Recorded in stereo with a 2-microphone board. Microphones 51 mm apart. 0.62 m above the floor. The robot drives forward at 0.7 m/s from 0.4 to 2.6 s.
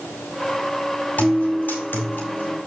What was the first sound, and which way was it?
A guitar, 35° left (ahead or behind).